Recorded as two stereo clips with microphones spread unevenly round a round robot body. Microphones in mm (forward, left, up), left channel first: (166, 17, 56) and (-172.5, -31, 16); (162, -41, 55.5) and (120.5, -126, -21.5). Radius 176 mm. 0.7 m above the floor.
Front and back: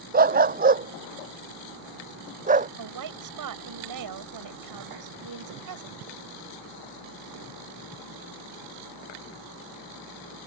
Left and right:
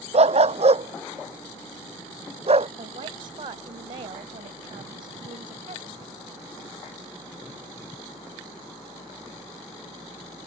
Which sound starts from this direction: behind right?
A woman speaking, at 2.8 s.